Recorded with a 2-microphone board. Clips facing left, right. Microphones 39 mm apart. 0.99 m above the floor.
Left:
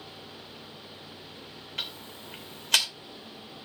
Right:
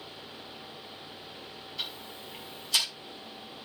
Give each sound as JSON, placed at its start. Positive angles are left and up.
{"t": 1.8, "sound": "ticking", "side_deg": 70, "distance_m": 2.0}